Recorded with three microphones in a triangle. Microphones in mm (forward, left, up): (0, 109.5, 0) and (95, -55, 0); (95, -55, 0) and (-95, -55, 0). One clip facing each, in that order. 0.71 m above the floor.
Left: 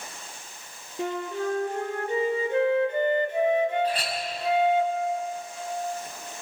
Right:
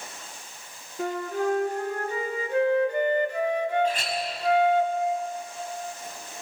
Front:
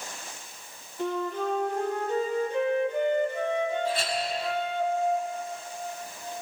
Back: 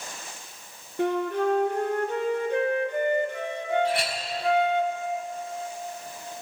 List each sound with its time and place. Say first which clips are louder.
1.0 s a flute: right 2 dB, back 5 dB; 175° right, 2 m
3.8 s a clink: right 1 dB, back 2 dB; 175° left, 4 m